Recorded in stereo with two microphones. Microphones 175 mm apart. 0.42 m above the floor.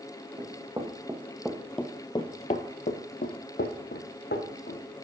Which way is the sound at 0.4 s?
25° right (ahead or behind).